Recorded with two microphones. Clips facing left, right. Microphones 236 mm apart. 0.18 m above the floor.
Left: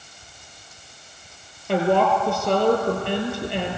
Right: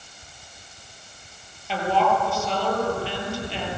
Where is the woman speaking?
60° left (ahead or behind), 4.5 m.